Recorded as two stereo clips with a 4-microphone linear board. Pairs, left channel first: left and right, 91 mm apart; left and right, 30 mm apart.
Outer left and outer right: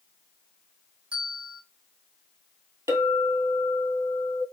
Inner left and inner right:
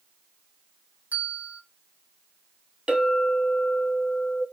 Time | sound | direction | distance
1.1 | a bell | 75° right (ahead or behind) | 1.1 m
2.9 | a clink | 35° right (ahead or behind) | 1.6 m